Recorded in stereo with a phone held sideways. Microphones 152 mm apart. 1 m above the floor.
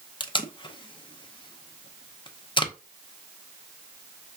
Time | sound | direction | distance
0.2 | tape being pulled | 30° left (ahead or behind) | 0.6 m